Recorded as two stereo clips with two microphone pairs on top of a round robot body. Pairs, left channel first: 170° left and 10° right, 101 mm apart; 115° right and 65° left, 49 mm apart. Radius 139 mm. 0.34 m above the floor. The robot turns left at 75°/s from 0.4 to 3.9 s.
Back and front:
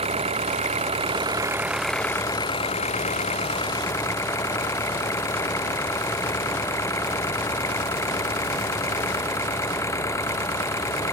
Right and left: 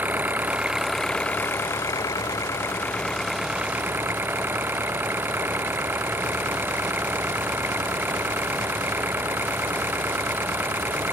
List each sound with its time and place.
0.0 s an engine running: 10° left; by 11.2 s 110° left